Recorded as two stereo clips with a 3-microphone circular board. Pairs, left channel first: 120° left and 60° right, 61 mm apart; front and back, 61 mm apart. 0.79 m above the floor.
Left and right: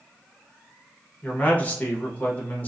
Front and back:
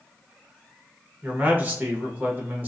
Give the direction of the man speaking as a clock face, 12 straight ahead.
7 o'clock.